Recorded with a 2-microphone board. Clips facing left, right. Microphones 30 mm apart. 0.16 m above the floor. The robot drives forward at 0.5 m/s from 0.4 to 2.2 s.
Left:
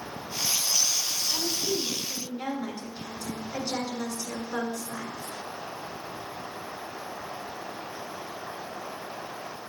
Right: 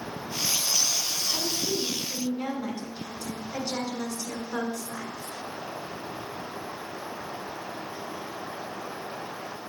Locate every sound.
1.3 s a woman speaking: 5° right (ahead or behind), 1.4 m